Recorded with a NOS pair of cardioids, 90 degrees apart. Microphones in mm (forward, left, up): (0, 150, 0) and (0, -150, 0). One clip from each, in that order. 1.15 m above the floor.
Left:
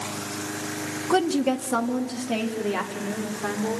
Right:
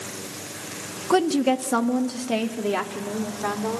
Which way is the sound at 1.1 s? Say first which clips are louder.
Right 2 dB; 10° right.